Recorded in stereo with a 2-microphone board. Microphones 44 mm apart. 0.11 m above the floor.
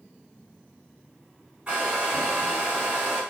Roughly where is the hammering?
I don't hear hammering.